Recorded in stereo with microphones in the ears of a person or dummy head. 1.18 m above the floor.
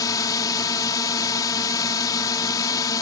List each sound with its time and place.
0.0 s a drone: 20° left (ahead or behind)